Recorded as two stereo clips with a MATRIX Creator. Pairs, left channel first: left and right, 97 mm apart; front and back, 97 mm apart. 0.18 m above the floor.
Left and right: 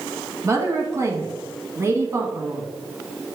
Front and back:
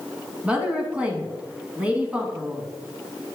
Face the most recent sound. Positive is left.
turn(degrees=-110)